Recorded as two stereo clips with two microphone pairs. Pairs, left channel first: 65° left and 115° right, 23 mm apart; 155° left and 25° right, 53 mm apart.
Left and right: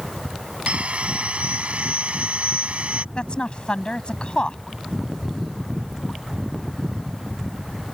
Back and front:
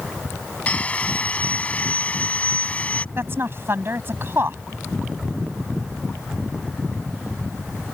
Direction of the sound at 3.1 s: 20° left.